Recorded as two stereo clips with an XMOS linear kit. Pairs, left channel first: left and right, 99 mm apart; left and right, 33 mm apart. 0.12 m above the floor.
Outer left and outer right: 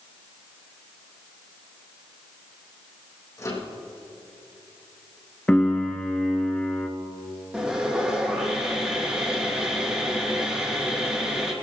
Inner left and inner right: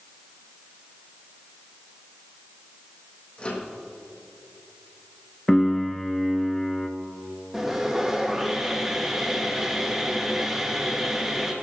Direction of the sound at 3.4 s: 35° left (ahead or behind).